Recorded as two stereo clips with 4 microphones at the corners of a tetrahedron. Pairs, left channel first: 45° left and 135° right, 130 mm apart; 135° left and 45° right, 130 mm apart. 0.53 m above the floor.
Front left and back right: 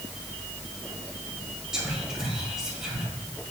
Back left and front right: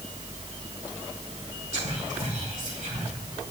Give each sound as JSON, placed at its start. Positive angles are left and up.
{"t": 1.7, "sound": "whispering", "azimuth_deg": -50, "distance_m": 2.0}